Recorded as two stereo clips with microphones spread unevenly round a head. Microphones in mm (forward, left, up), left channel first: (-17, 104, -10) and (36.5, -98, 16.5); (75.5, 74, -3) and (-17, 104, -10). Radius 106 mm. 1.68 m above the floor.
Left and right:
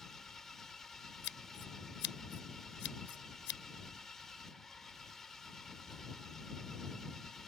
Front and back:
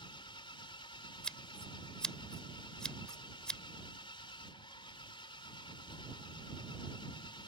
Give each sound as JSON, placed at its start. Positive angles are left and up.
{"t": 0.0, "sound": "an engine running", "azimuth_deg": 15}
{"t": 1.2, "sound": "scissors", "azimuth_deg": 65}